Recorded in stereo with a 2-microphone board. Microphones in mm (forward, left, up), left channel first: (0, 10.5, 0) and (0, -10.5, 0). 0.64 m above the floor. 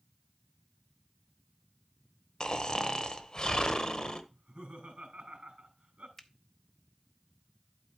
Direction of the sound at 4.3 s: 75° right (ahead or behind).